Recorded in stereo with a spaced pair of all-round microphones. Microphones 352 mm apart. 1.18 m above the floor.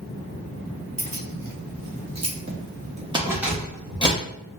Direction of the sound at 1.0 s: 70° right (ahead or behind).